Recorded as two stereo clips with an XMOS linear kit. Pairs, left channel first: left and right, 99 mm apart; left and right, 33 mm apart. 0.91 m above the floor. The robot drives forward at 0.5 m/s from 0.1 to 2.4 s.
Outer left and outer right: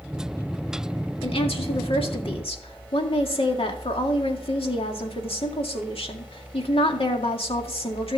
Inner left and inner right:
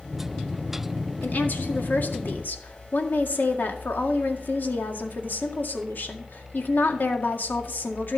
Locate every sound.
1.2 s a woman speaking: 70° left (ahead or behind), 2.0 m